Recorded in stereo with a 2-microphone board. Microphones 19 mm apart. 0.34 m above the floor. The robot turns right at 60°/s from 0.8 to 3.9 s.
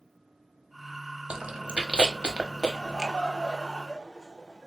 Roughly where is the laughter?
Left.